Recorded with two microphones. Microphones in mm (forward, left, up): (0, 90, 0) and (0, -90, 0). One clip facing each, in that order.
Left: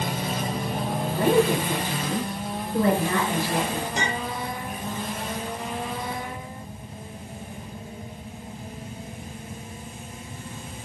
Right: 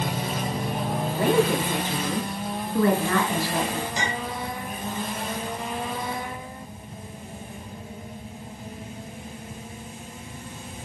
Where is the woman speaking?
50° left (ahead or behind), 2.5 m; by 3.9 s 10° left (ahead or behind), 1.6 m.